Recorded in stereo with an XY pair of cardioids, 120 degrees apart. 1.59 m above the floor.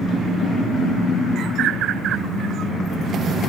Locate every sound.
1.4 s a bird: 65° right